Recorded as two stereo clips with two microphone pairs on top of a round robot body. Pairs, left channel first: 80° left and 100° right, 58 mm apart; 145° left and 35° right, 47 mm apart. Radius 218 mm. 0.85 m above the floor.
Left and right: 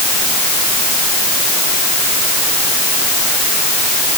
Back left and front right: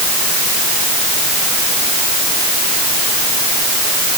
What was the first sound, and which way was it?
Only background noise.